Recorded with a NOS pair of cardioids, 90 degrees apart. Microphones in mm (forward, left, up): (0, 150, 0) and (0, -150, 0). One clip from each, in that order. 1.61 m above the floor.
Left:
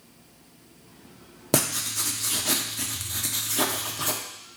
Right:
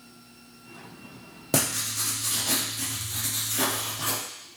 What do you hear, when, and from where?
1.5 s writing: 30° left, 0.9 m